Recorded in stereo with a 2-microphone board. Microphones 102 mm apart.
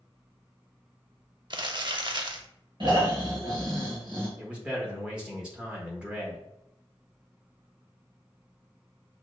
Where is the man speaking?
10° right (ahead or behind), 0.9 m.